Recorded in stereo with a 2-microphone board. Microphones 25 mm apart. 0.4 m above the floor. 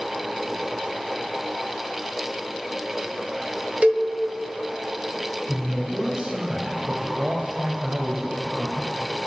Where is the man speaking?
45° right (ahead or behind), 1.7 m.